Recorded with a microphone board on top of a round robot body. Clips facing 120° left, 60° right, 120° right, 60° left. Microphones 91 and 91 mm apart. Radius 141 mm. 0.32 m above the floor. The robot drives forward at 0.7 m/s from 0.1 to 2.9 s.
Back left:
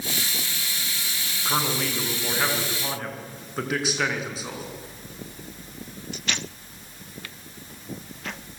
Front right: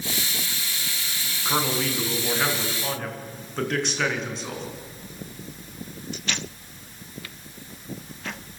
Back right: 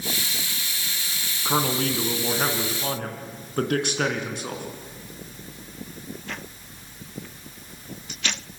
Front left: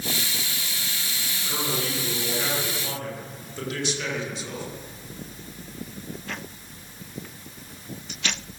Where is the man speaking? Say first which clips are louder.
Front right 1 dB, back right 6 dB; 150° right, 4.5 m; by 4.7 s 155° right, 5.5 m.